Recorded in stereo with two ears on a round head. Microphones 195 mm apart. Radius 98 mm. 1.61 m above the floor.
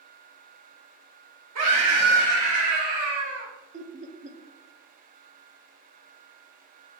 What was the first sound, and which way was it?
A scream, 80° right.